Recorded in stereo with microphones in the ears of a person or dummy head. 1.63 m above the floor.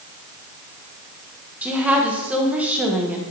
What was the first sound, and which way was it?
A woman speaking, centre (ahead or behind).